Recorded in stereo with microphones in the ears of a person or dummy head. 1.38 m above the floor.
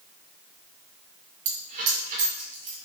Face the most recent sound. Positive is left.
turn(degrees=-50)  # may be behind; listen again after turning